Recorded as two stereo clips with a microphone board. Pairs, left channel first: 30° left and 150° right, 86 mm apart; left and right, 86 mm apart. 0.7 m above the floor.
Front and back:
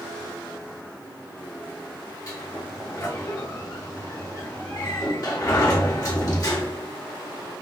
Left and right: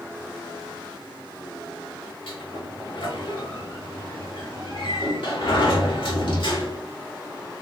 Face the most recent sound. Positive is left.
turn(degrees=75)